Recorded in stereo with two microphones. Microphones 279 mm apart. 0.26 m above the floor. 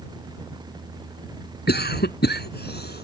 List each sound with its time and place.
1.7 s a cough: 35° left (ahead or behind)